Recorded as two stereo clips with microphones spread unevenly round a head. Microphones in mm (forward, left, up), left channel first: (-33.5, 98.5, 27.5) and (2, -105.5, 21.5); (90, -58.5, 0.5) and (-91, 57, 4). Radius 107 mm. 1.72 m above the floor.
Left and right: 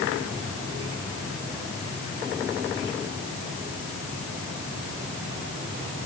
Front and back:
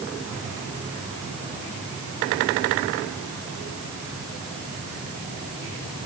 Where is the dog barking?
No dog barking in this recording.